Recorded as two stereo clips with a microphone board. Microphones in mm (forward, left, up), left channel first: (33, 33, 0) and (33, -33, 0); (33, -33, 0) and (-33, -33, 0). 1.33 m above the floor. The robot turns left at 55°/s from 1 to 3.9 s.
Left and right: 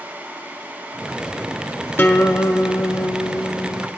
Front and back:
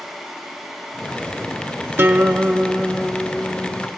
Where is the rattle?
I don't hear a rattle.